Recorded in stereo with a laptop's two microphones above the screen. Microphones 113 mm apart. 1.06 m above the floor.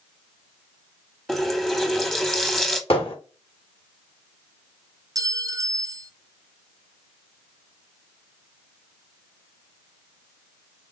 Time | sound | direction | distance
1.3 | a running tap | 5° left (ahead or behind) | 1.2 m
2.9 | hammering | 55° left (ahead or behind) | 2.5 m
5.2 | a clink | 30° right (ahead or behind) | 0.5 m